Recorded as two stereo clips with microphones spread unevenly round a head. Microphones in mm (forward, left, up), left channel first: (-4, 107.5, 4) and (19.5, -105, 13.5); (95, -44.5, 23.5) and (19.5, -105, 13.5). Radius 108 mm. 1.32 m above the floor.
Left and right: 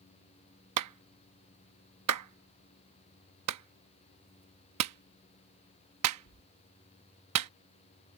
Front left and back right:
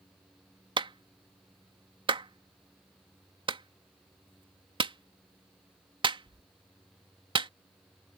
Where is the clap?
105° right.